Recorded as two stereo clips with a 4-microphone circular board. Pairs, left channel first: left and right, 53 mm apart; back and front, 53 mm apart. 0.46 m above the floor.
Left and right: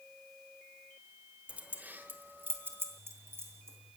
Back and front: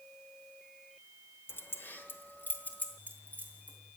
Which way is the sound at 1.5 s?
150° right.